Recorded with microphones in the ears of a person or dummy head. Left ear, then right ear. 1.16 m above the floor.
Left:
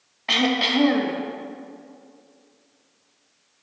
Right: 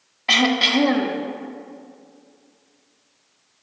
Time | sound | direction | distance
0.3 | throat clearing | 10° right (ahead or behind) | 0.8 m